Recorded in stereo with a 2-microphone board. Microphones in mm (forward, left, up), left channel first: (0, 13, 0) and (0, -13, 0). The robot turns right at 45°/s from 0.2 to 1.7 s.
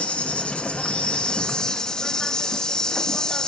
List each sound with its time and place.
0.0 s an insect: 85° left, 1.5 m; by 3.5 s 155° left, 1.5 m